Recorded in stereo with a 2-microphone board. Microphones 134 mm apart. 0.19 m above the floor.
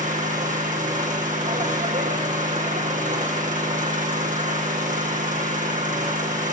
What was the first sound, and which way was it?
An engine running, 70° right (ahead or behind).